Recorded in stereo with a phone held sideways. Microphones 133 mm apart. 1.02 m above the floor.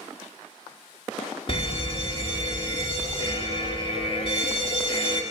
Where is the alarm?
45° left (ahead or behind), 1.8 m.